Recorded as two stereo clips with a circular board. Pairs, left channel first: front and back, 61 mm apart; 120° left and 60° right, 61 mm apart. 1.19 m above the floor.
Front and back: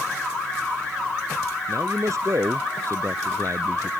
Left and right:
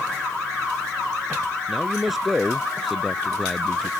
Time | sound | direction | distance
1.7 | a man speaking | 150° right | ?